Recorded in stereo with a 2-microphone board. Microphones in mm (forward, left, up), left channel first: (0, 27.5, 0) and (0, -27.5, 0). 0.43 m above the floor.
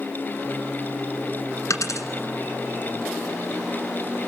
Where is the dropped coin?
75° left (ahead or behind), 1.8 m.